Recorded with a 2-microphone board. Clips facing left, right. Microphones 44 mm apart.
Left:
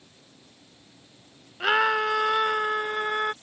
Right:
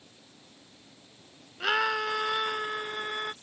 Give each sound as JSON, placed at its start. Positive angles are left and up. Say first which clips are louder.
{"t": 1.6, "sound": "a scream", "louder": "left 5 dB", "side_deg": 20}